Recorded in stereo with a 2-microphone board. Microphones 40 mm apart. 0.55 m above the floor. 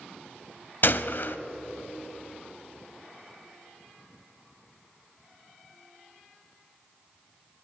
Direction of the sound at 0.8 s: 55° left (ahead or behind).